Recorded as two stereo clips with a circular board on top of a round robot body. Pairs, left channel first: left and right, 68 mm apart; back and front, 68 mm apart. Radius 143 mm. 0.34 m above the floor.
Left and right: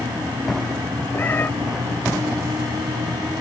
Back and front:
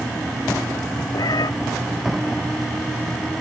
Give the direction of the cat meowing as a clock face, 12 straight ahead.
7 o'clock.